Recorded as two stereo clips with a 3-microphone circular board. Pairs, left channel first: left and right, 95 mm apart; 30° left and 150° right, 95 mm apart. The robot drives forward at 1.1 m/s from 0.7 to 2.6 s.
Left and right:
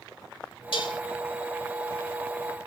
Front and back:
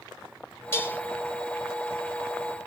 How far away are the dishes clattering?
About 2.5 m.